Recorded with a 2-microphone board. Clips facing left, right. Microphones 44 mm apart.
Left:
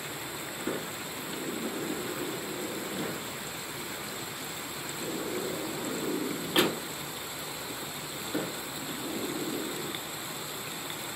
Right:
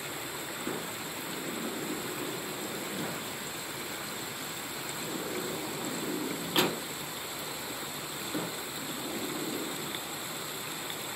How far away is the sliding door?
About 1.5 m.